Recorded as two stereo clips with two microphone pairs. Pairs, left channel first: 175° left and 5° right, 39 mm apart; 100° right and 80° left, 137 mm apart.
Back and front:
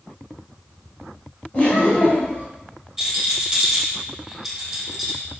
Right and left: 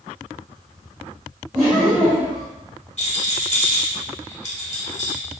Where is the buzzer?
I don't hear a buzzer.